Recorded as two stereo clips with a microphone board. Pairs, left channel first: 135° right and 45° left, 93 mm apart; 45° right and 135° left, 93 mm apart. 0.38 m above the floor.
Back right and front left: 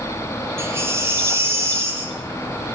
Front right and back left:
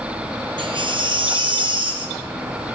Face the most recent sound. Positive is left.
turn(degrees=105)